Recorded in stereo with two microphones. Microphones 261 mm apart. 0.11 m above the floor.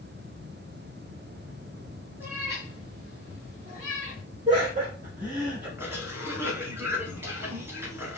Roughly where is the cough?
Centre.